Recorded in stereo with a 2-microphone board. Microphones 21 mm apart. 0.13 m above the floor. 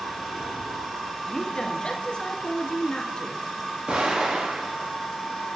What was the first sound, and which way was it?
A woman speaking, 40° left (ahead or behind).